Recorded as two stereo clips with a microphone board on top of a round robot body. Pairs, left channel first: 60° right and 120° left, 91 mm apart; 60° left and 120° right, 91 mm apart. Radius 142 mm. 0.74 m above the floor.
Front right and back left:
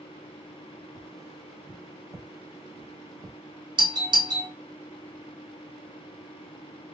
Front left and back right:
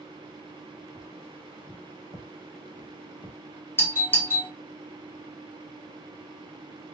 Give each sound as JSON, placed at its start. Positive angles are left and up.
{"t": 1.0, "sound": "tapping", "azimuth_deg": 75, "distance_m": 1.2}
{"t": 3.8, "sound": "a doorbell", "azimuth_deg": 120, "distance_m": 2.5}